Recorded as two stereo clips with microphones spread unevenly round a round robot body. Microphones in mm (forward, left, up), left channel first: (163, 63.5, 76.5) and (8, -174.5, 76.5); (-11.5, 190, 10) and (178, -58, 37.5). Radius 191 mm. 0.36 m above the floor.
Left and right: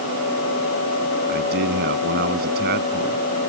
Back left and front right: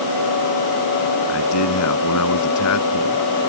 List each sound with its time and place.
1.3 s a man speaking: 175° left